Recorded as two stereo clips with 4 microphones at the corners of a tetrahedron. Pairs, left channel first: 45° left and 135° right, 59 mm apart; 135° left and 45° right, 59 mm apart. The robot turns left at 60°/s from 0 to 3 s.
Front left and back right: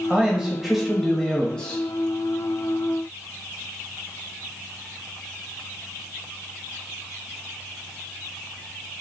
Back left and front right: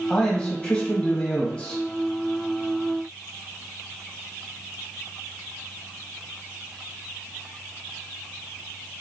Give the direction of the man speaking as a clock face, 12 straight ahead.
6 o'clock.